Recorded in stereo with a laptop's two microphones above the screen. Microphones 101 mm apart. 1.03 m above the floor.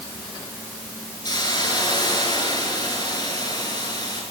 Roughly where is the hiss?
Left.